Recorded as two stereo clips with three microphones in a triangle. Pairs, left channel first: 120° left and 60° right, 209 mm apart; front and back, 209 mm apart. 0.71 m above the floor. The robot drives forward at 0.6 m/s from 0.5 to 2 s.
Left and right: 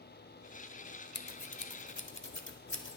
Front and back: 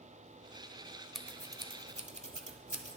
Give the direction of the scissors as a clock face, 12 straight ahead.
9 o'clock.